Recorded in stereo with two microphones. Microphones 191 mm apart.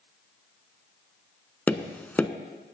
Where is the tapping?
10° left (ahead or behind), 0.5 m.